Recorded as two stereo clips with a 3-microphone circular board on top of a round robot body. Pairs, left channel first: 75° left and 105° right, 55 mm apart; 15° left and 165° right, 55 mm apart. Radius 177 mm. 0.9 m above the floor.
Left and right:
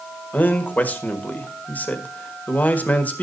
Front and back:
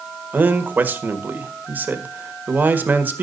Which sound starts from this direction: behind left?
A man speaking, at 0.3 s.